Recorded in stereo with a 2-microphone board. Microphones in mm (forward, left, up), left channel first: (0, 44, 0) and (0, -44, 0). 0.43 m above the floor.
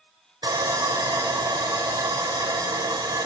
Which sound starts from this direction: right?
Sawing, at 0.4 s.